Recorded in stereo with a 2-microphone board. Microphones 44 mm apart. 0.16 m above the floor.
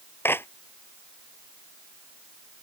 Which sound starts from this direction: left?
A clap, at 0.2 s.